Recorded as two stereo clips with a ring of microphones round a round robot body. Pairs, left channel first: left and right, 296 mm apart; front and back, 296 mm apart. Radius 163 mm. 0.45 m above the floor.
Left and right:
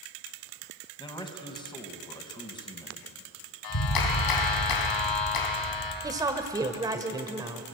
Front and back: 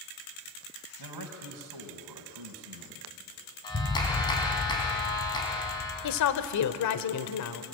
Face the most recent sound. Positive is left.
turn(degrees=-15)